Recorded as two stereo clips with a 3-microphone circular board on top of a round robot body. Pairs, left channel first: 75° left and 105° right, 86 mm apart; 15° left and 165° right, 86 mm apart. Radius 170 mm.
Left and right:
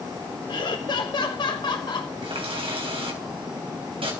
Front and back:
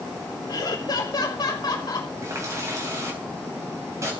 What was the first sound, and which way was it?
Laughter, 50° left.